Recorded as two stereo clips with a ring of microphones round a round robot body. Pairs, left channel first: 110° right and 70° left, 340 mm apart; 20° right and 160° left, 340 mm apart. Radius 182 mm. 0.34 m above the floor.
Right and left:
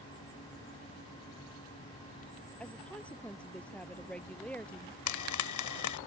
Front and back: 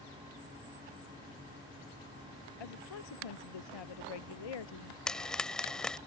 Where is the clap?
No clap in this recording.